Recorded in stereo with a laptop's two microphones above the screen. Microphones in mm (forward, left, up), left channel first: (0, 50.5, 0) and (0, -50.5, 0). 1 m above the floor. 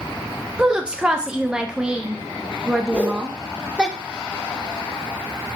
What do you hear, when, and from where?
0.6 s a woman speaking: 10° right (ahead or behind), 0.6 m
2.9 s a whoosh: 15° left (ahead or behind), 1.0 m